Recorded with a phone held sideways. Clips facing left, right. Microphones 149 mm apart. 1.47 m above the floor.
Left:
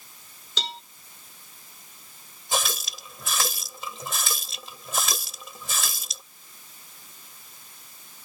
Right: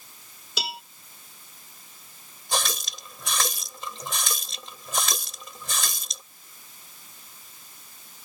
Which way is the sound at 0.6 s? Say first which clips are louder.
Right 1 dB; 10° right (ahead or behind).